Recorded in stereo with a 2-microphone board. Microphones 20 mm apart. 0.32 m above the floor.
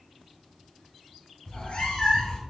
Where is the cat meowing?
75° left (ahead or behind), 1.2 m.